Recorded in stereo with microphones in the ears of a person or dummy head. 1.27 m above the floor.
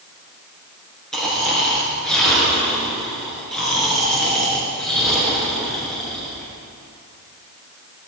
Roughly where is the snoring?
Centre.